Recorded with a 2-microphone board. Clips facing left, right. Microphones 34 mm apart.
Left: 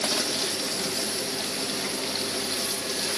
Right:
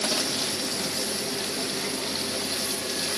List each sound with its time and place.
Only background noise.